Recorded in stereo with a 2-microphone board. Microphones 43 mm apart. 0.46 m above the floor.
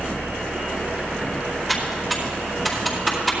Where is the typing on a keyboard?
Centre (ahead or behind), 4.5 m.